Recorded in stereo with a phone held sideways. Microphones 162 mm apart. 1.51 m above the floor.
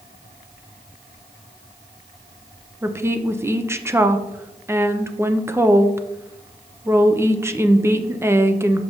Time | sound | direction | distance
2.8 | a woman speaking | 15° right (ahead or behind) | 0.6 m